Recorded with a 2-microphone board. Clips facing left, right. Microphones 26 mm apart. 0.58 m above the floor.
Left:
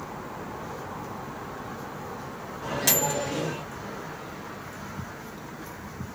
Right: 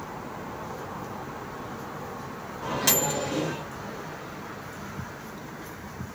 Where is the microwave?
10° right (ahead or behind), 1.3 m.